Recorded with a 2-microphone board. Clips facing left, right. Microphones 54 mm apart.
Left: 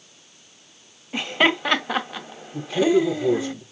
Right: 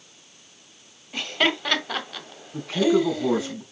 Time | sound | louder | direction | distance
1.1 | laughter | left 4 dB | 20° left (ahead or behind) | 1.5 m
2.5 | a man speaking | left 2 dB | 65° right (ahead or behind) | 4 m